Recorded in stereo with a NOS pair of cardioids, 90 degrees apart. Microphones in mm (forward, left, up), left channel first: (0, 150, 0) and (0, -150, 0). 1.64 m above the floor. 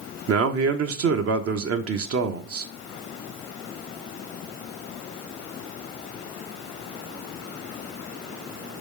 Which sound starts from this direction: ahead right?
A man speaking, at 0.3 s.